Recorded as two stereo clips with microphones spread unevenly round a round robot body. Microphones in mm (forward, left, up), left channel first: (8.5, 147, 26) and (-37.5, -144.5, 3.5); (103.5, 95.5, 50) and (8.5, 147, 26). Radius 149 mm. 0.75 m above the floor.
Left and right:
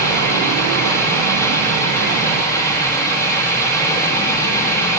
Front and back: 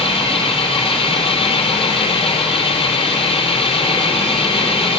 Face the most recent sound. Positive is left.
turn(degrees=0)